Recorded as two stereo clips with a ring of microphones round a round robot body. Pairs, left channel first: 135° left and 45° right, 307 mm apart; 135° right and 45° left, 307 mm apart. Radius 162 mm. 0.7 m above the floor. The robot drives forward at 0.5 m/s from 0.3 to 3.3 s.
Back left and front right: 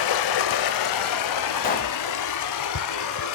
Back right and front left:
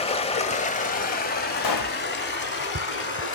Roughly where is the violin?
I don't hear a violin.